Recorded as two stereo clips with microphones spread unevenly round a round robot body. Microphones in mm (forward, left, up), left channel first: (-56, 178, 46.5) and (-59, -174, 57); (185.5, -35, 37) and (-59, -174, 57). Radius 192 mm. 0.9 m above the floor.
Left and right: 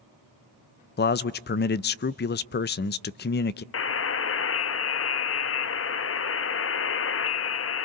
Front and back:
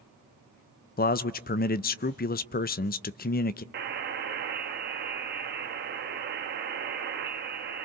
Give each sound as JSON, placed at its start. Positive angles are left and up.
{"t": 1.0, "sound": "a man speaking", "azimuth_deg": 50, "distance_m": 0.5}
{"t": 3.7, "sound": "a buzzer", "azimuth_deg": 145, "distance_m": 0.8}